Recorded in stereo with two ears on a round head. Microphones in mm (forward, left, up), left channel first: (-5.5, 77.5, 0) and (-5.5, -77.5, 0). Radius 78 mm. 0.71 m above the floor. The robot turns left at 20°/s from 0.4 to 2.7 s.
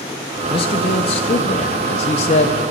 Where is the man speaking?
120° left, 0.5 m; by 2.6 s 75° left, 0.5 m.